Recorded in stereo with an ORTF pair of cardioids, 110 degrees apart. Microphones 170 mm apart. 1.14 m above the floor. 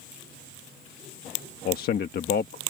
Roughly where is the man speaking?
Ahead left.